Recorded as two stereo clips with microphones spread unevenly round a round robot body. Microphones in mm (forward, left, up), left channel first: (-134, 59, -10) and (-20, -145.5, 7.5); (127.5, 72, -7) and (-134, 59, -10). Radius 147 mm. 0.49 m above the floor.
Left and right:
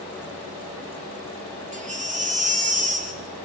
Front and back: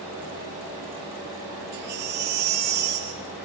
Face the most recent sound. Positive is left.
turn(degrees=-120)